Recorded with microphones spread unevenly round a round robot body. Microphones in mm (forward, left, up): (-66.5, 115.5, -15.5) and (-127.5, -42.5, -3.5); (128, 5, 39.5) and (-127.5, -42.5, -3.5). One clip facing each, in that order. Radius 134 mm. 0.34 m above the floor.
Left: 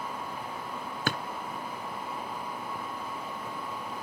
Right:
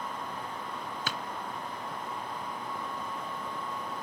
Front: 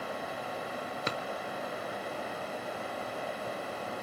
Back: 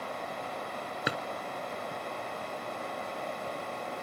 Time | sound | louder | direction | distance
1.1 | a drawer | left 8 dB, back 3 dB | 110° left | 0.9 m